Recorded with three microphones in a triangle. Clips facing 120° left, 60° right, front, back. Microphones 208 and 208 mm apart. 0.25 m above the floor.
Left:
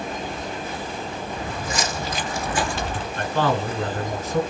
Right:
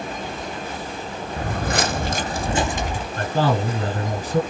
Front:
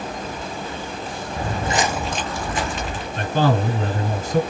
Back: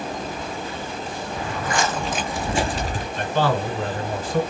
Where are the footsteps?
35° right, 0.7 m; by 3.1 s 140° right, 1.0 m.